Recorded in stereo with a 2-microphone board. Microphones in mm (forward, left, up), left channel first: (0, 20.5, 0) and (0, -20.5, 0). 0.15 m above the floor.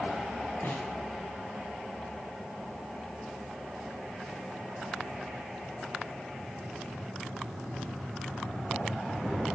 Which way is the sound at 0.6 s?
65° left (ahead or behind).